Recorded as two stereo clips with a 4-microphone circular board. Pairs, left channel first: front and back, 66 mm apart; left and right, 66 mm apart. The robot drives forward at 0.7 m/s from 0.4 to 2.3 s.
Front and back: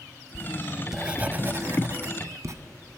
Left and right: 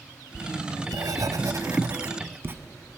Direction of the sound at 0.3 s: 75° right.